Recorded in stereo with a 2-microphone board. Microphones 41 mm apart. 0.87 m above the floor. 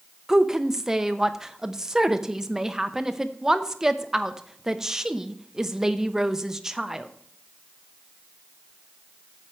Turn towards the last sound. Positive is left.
turn(degrees=-15)  # may be behind; listen again after turning